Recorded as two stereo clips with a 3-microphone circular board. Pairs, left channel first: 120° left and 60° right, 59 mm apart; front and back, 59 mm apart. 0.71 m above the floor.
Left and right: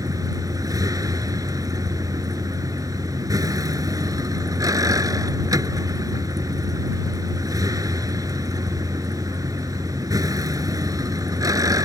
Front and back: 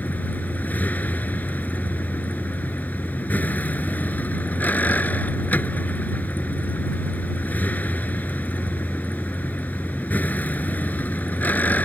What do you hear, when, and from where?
0.0 s a vehicle: 60° right